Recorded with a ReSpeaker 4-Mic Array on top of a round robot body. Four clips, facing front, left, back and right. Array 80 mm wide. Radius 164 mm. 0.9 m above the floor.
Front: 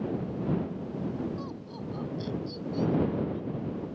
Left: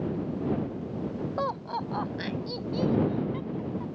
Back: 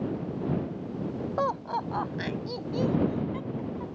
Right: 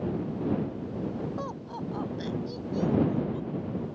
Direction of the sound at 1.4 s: 155° left.